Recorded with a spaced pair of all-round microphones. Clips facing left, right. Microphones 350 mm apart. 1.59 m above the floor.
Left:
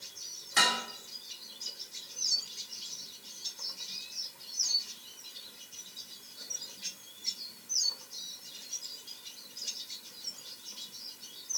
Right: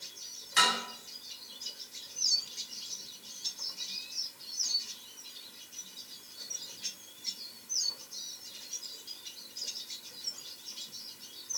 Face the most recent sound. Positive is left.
turn(degrees=55)  # may be behind; listen again after turning